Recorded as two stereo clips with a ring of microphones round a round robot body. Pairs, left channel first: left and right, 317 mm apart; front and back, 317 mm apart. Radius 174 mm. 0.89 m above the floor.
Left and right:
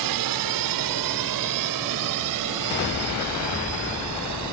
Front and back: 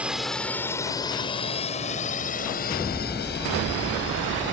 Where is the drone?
95° right; by 4.5 s 60° right.